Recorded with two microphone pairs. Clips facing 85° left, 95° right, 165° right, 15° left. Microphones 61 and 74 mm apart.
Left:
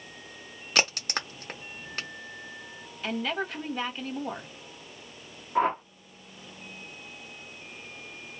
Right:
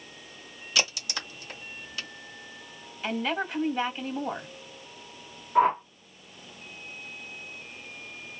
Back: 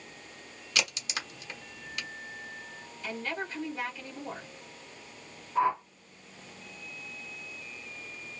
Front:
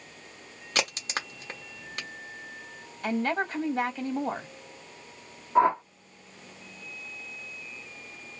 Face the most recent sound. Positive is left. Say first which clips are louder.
# right 4 dB, front 5 dB
turn(degrees=-5)